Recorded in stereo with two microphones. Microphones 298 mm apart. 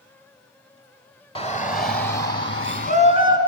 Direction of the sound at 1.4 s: 20° left (ahead or behind).